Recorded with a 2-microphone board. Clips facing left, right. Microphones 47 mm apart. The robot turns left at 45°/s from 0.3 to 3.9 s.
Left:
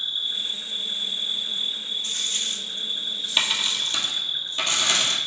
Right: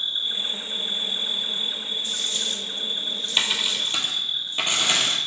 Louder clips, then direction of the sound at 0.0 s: Right 1 dB; 30° right.